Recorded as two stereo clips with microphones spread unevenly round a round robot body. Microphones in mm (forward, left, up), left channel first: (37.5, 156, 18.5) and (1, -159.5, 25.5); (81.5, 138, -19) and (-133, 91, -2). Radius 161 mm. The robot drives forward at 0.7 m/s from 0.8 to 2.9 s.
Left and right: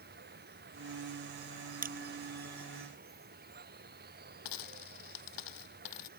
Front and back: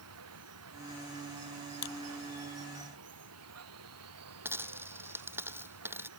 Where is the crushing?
30° right; by 2.1 s 35° right.